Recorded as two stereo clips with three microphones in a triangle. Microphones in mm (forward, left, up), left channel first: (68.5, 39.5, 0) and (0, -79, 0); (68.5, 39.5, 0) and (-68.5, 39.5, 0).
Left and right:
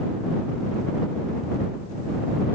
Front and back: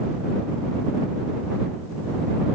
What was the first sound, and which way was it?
Only background noise.